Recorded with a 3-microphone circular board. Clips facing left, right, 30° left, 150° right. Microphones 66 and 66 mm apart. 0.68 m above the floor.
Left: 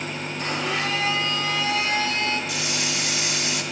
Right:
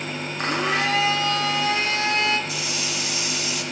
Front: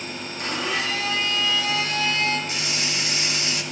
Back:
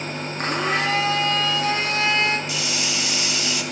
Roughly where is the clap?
No clap in this recording.